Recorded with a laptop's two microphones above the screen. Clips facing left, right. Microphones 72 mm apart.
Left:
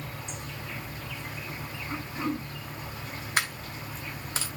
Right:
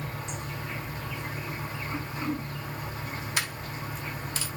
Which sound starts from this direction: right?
An insect, at 0.0 s.